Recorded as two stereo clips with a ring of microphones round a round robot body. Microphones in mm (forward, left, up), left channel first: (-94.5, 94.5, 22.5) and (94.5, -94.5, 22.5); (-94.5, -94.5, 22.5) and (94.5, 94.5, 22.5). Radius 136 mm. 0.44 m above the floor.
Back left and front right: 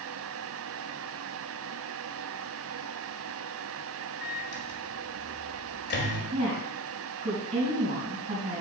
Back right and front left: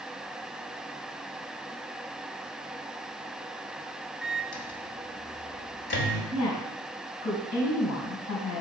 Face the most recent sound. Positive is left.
turn(degrees=-110)